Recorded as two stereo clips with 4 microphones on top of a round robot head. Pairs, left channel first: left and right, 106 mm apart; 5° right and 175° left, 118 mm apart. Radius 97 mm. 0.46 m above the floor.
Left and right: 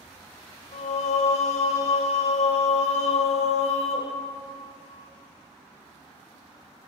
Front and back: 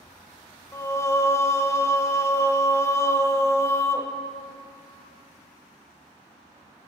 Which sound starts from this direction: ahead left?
Singing, at 0.7 s.